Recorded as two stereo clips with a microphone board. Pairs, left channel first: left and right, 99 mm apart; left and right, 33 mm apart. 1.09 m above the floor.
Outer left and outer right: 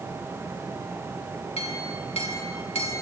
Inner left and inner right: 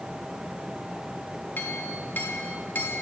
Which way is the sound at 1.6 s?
80° left.